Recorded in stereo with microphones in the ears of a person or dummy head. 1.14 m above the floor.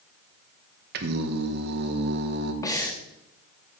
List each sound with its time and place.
0.9 s singing: 55° right (ahead or behind), 1.1 m
2.6 s breathing: 15° left (ahead or behind), 1.0 m